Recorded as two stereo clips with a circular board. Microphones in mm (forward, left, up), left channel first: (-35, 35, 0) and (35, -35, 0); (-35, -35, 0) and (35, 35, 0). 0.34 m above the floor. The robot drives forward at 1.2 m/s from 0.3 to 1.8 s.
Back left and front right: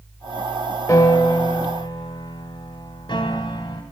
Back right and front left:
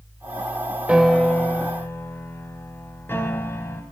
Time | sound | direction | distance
0.9 | a piano | 115° left | 0.8 m